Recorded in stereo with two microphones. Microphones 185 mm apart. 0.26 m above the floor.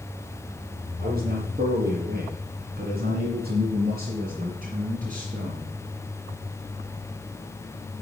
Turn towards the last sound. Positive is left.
turn(degrees=-40)  # may be behind; listen again after turning